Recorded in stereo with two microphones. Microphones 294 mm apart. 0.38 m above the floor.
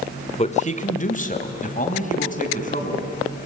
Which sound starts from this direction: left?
A man speaking, at 0.4 s.